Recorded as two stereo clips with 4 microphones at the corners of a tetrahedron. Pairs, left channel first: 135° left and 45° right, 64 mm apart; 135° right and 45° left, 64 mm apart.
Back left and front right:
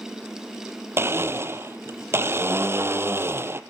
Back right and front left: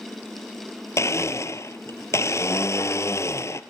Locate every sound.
1.0 s a blender: 95° right, 0.9 m